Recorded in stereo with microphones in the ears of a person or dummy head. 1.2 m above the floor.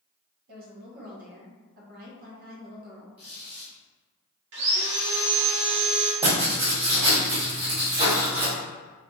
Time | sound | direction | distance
0.5 | a woman speaking | 55° right (ahead or behind) | 0.9 m
3.2 | a squeak | 10° right (ahead or behind) | 1.2 m
4.5 | sawing | 70° right (ahead or behind) | 1.0 m
6.2 | writing | 30° right (ahead or behind) | 1.1 m